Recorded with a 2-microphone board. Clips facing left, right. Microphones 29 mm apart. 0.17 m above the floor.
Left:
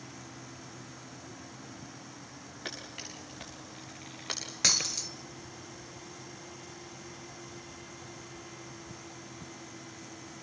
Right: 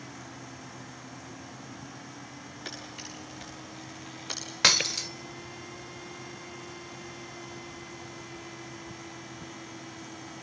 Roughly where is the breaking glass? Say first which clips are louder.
Right 6 dB; right.